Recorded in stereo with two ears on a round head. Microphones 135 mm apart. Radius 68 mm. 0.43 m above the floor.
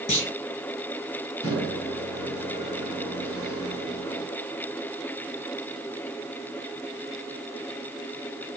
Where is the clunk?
45° left (ahead or behind), 2 m.